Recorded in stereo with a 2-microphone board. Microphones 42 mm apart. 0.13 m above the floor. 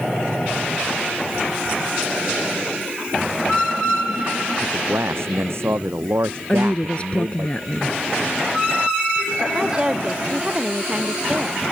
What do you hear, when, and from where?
4.6 s a man speaking: 75° right (ahead or behind)
6.5 s a woman speaking: 30° left (ahead or behind)
9.4 s a woman speaking: 20° right (ahead or behind)